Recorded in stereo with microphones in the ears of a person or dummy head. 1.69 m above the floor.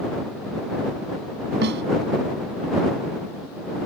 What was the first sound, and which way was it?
A snare drum, 55° right (ahead or behind).